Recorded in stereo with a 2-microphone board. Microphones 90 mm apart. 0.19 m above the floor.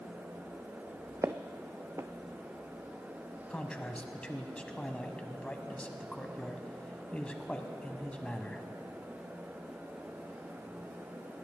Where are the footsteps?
30° right (ahead or behind), 0.6 m.